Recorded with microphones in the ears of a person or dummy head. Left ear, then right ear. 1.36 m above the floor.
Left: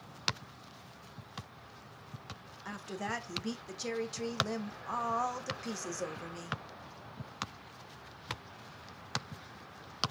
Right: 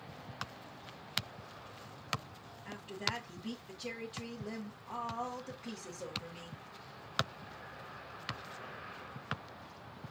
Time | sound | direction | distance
2.6 | a woman speaking | 50° left (ahead or behind) | 1.1 m